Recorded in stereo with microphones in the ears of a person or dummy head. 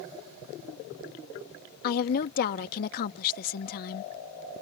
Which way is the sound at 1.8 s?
45° left (ahead or behind).